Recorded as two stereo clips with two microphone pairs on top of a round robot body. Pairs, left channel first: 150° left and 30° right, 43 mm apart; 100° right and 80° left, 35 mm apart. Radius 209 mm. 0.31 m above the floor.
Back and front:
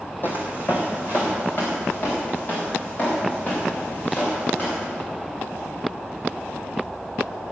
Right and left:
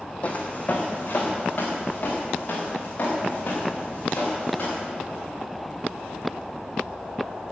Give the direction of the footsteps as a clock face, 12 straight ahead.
5 o'clock.